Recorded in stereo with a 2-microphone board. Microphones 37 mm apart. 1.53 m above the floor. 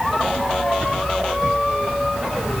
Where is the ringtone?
I don't hear a ringtone.